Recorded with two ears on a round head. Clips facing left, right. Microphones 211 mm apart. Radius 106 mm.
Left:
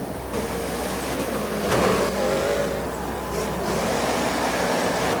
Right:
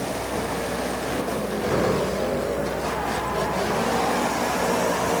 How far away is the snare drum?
No snare drum in this recording.